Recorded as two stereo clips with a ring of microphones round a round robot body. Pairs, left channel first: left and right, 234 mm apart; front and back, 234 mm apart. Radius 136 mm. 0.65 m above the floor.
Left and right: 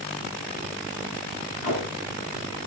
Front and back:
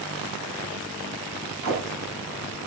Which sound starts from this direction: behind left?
Tape being pulled, at 1.6 s.